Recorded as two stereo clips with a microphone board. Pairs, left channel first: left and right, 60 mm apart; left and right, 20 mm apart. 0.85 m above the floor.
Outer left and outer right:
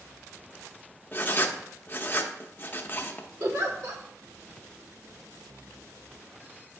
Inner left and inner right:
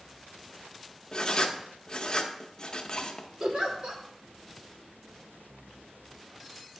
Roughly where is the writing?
Left.